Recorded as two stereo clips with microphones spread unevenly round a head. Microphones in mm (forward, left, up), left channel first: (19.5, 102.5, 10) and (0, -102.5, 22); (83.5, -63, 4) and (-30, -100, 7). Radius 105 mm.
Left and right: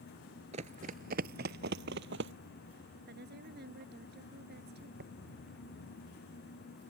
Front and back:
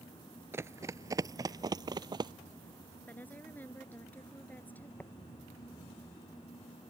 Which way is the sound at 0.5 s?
115° right.